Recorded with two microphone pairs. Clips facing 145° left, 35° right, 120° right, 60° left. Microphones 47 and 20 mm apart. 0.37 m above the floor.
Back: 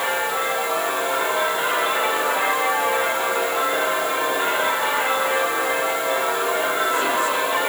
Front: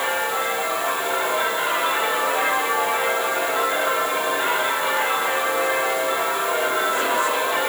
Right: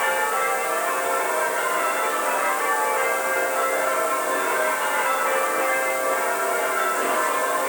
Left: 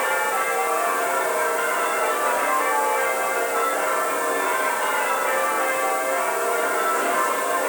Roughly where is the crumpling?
No crumpling in this recording.